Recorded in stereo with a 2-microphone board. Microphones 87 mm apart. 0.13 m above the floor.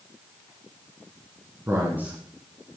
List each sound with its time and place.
1.7 s a man speaking: 35° right (ahead or behind), 1.3 m; by 2.8 s 15° left (ahead or behind), 1.1 m